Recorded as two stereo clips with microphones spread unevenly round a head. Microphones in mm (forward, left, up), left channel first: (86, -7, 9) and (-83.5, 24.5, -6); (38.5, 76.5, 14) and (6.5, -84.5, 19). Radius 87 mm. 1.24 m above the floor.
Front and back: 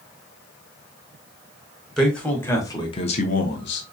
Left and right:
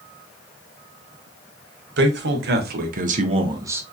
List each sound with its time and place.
2.0 s a man speaking: 100° right, 1.4 m; by 3.8 s 25° right, 0.8 m